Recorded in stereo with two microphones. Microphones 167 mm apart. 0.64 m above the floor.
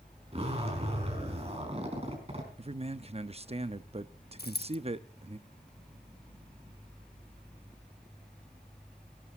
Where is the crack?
No crack in this recording.